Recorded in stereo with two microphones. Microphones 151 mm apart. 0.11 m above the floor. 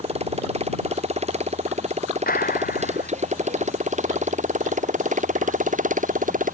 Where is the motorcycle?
45° right (ahead or behind); by 6.5 s 60° right (ahead or behind).